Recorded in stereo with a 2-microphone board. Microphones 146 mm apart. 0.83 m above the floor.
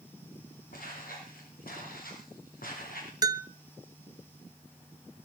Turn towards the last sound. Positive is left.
turn(degrees=-25)  # may be behind; listen again after turning